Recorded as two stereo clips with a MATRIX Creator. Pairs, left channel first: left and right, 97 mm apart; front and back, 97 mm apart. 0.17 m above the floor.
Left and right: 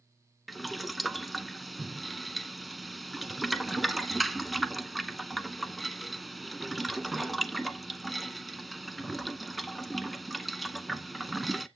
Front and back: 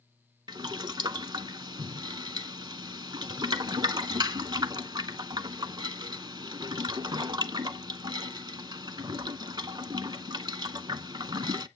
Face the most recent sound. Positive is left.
turn(degrees=180)